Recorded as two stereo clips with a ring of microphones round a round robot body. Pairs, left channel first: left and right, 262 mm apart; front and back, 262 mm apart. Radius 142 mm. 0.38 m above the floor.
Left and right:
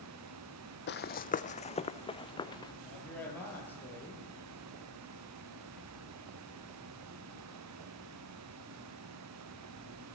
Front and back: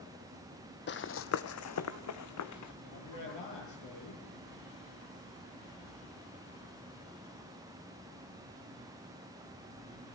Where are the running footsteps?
45° left, 0.7 m; by 2.7 s 15° left, 1.8 m.